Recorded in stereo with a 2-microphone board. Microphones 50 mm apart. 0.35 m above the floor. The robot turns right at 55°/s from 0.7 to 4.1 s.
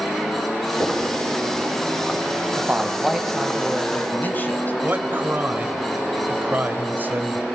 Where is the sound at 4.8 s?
40° right (ahead or behind), 1.6 m.